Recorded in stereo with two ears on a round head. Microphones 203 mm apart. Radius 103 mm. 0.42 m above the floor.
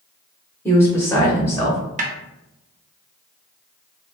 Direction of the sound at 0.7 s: 10° left (ahead or behind).